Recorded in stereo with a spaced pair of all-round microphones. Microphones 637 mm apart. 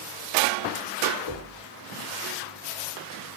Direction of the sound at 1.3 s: 50° left (ahead or behind).